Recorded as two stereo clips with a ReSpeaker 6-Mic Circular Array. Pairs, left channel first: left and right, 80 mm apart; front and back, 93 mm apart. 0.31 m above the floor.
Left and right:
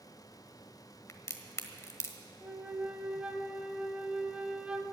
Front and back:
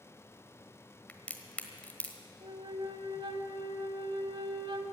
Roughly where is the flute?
Behind.